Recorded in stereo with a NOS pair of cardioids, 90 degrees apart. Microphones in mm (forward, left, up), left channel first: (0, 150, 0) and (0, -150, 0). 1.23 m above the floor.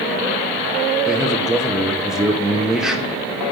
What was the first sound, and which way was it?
A man speaking, straight ahead.